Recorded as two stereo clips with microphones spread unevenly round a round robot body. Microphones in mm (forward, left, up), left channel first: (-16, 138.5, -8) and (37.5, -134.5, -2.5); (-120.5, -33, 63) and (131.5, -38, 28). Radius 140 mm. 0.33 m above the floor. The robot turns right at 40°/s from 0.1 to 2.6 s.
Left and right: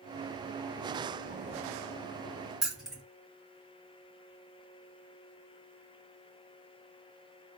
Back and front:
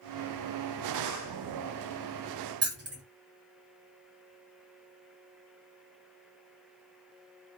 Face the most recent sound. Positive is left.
turn(degrees=10)